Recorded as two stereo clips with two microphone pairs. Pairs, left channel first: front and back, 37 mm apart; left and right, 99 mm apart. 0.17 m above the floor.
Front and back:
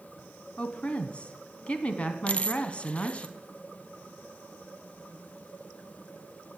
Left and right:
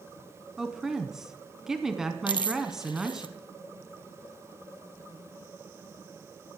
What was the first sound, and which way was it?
A woman speaking, 5° right.